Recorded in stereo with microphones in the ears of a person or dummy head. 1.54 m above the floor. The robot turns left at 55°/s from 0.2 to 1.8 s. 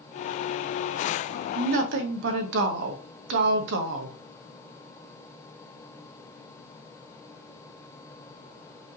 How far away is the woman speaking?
About 0.9 m.